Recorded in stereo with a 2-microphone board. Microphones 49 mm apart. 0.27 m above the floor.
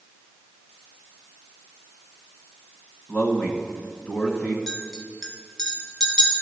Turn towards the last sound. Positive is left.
turn(degrees=-5)  # may be behind; listen again after turning